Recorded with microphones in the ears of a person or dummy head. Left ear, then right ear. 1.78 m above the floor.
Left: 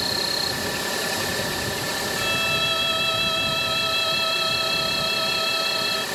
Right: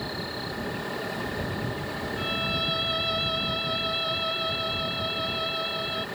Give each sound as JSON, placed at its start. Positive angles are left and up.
{"t": 0.0, "sound": "an insect", "side_deg": 85}
{"t": 2.2, "sound": "a violin", "side_deg": 15}